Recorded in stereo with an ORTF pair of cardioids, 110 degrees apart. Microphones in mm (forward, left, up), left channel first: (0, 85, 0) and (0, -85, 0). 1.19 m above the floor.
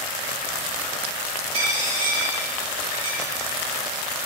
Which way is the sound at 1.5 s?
40° right.